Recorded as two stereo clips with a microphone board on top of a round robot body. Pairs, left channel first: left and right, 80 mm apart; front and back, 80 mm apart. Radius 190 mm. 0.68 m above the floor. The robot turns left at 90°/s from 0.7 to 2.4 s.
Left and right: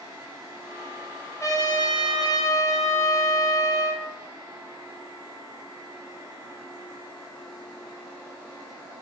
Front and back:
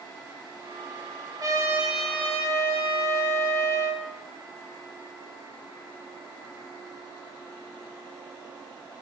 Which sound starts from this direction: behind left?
A trumpet, at 1.4 s.